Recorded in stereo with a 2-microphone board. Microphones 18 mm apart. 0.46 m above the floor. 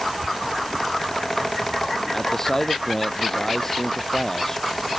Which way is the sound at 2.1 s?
20° left (ahead or behind).